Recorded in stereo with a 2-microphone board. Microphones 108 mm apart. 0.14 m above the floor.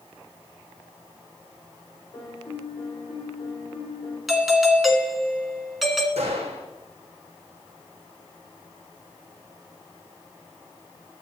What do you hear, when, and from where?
2.1 s a piano: 40° left (ahead or behind), 4 m
4.3 s a doorbell: centre (ahead or behind), 1.5 m
6.2 s a gunshot: 75° right (ahead or behind), 3.5 m